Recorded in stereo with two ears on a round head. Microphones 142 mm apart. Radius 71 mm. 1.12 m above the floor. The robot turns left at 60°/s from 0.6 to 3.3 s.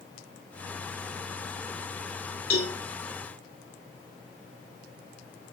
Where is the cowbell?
55° left (ahead or behind), 4.5 m; by 2.8 s 40° left (ahead or behind), 4.5 m.